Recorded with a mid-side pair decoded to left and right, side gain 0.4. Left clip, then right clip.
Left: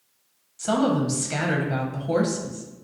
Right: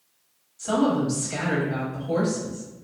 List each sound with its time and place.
0.6 s a woman speaking: 60° left, 0.9 m